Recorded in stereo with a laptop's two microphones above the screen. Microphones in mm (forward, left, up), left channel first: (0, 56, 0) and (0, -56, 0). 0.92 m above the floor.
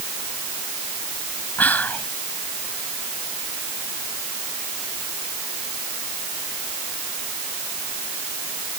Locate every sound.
1.6 s whispering: 15° left (ahead or behind)